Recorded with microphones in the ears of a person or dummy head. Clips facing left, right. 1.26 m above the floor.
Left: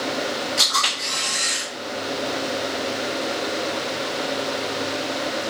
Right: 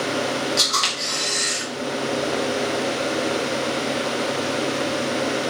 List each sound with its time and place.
0.6 s a camera shutter: 80° right, 1.5 m